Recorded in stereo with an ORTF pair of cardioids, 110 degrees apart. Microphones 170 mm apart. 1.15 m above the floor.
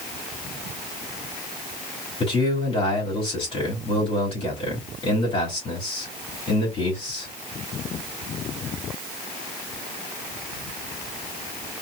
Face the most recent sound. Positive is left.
turn(degrees=35)